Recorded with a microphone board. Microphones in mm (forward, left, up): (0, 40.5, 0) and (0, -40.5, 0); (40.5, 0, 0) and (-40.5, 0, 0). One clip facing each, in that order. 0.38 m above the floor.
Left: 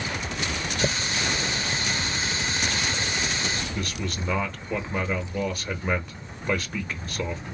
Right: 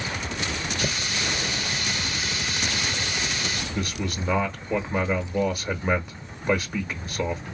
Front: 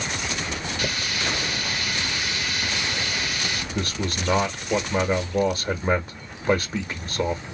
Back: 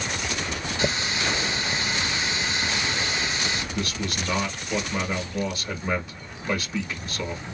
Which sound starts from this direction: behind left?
A running tap, at 0.8 s.